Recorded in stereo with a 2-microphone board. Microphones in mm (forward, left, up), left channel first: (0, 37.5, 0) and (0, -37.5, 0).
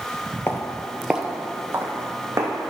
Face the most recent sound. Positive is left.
turn(degrees=-35)  # may be behind; listen again after turning